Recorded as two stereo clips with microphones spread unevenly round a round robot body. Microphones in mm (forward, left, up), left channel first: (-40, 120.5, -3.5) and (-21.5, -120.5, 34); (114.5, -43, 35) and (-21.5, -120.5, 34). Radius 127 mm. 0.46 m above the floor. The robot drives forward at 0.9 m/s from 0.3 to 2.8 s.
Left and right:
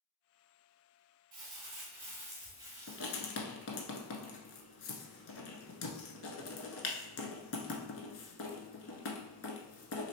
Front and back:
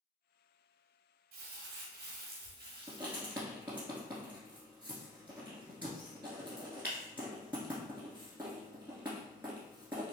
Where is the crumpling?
145° right, 1.4 m; by 3.4 s 160° right, 2.5 m.